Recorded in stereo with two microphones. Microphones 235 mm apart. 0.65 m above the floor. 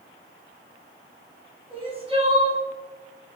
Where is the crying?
25° right (ahead or behind), 2.5 m.